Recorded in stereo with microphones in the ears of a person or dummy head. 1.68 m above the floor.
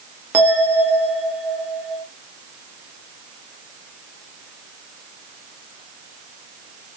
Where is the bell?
15° right (ahead or behind), 0.9 m.